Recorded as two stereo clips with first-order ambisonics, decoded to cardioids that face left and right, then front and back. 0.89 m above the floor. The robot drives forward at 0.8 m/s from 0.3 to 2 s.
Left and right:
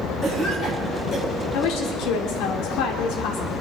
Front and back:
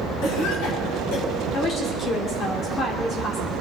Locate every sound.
0.2 s a cough: 20° left, 8 m
1.5 s a woman speaking: 60° left, 2.5 m; by 3.5 s 65° left, 2 m